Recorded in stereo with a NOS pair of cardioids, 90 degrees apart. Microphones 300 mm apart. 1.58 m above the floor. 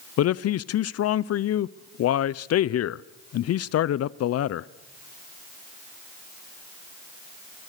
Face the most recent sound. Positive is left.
turn(degrees=55)